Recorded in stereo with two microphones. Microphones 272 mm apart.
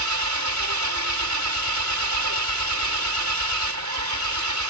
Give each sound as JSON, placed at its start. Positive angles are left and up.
{"t": 0.0, "sound": "an engine running", "side_deg": -85}